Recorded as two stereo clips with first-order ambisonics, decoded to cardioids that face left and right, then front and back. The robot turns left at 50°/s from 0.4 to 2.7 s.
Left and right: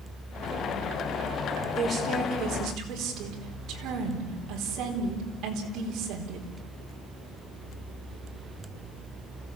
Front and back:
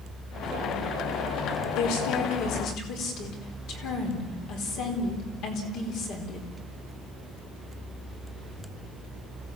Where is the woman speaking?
5° left, 4.5 m; by 6.5 s 45° right, 4.5 m.